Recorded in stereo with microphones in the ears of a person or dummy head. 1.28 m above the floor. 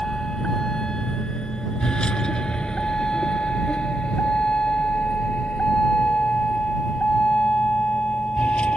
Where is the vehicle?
5° left (ahead or behind).